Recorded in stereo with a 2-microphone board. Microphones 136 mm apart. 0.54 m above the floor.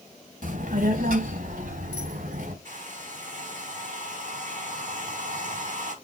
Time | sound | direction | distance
0.4 | a child speaking | 70° right (ahead or behind) | 1.8 m
2.6 | a hair dryer | 65° right (ahead or behind) | 4.5 m